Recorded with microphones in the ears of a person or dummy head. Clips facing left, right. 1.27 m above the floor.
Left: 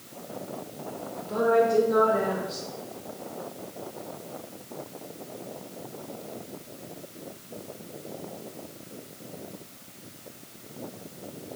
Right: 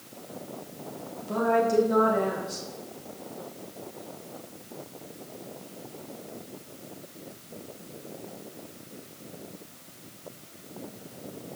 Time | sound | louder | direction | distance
1.2 | a woman speaking | left 2 dB | 70° right (ahead or behind) | 3.5 m